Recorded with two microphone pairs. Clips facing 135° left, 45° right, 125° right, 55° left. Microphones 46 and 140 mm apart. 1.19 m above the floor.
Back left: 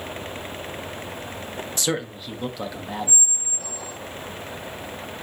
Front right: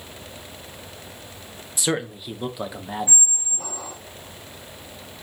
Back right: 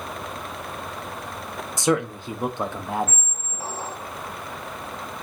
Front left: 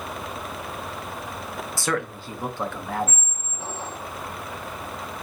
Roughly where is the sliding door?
I don't hear a sliding door.